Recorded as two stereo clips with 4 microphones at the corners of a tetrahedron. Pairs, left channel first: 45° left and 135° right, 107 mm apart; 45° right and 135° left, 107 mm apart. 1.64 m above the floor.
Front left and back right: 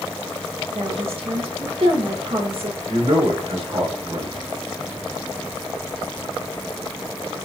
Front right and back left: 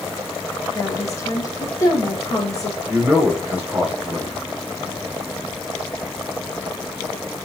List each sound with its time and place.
0.8 s a woman speaking: 105° right, 3 m
2.9 s a man speaking: 150° right, 4 m